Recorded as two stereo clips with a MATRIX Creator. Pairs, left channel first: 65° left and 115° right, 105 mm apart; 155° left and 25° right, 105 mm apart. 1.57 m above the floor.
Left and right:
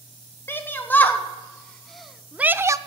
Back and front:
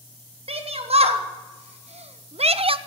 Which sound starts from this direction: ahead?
A shout, at 0.5 s.